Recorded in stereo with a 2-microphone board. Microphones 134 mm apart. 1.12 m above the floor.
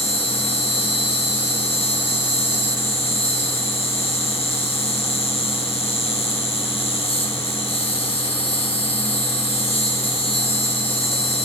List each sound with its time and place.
0.0 s an insect: 50° left (ahead or behind), 1.8 m